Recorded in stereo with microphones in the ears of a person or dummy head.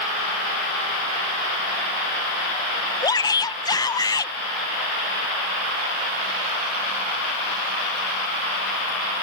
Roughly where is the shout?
Left.